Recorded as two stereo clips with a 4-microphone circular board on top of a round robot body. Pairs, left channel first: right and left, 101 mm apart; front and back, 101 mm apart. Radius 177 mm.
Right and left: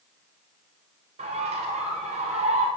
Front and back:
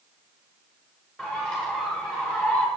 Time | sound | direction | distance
1.2 | a bird | 80° left | 0.8 m